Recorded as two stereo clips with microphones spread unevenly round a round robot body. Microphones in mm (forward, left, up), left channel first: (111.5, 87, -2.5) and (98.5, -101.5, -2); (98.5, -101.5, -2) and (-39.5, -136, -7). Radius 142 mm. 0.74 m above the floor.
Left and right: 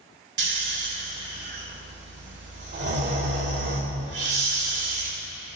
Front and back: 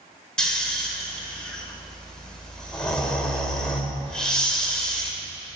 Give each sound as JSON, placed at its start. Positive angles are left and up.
{"t": 0.4, "sound": "snoring", "azimuth_deg": -70, "distance_m": 2.5}